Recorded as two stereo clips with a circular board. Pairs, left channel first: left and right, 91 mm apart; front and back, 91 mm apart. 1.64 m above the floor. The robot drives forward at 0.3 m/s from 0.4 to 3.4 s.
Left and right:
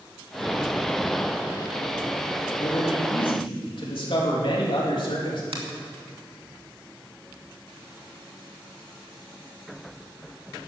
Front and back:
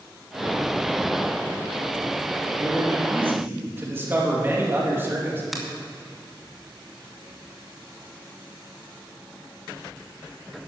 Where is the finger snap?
90° right, 2.5 m.